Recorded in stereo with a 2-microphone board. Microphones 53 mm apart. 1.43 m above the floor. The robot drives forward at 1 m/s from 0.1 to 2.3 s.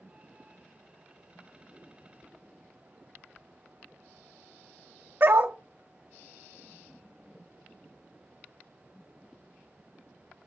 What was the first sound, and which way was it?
A dog barking, 50° right (ahead or behind).